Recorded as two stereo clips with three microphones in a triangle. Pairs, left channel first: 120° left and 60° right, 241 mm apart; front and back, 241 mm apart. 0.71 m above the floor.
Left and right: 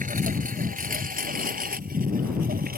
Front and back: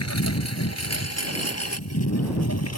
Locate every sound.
0.0 s a lawn mower: straight ahead; by 2.8 s 5° right